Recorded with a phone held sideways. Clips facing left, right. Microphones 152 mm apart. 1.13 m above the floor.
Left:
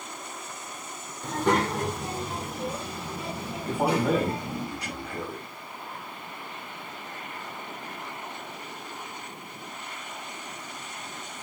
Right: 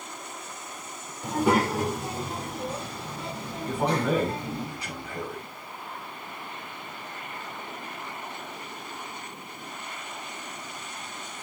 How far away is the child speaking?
About 2 m.